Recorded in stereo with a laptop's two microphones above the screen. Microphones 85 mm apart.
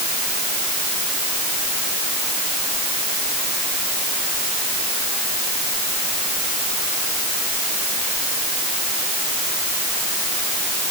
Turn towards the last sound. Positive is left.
No sound to turn to.